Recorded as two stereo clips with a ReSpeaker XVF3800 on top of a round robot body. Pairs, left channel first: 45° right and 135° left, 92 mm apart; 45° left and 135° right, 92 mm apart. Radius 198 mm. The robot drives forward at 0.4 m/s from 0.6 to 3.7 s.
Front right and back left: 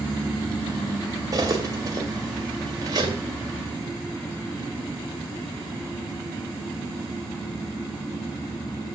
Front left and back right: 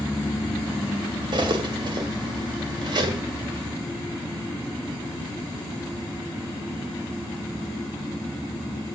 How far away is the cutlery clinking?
About 1.5 m.